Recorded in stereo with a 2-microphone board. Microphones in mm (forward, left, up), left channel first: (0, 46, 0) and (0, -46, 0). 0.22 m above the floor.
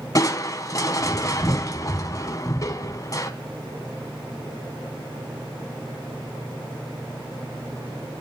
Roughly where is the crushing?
Left.